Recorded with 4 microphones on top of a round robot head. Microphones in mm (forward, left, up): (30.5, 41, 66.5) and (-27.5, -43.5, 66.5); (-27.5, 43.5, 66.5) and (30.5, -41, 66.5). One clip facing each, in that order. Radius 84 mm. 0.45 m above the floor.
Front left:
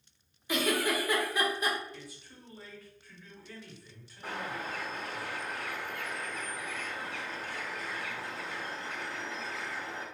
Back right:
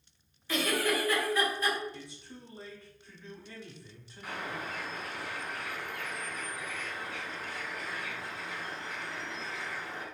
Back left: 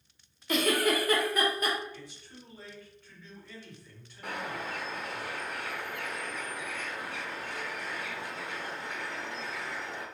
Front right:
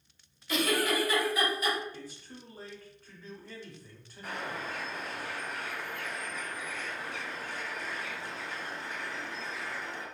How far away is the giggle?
About 0.8 m.